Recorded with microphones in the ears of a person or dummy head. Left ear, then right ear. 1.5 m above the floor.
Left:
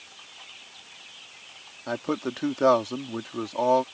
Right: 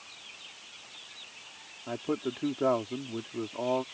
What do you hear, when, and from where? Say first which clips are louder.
1.9 s a man speaking: left 4 dB; 70° left (ahead or behind)